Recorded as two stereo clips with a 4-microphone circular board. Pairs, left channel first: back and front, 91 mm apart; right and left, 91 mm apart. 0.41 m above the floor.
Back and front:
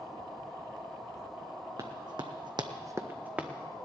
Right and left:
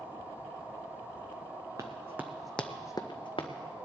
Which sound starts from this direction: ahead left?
Running footsteps, at 1.8 s.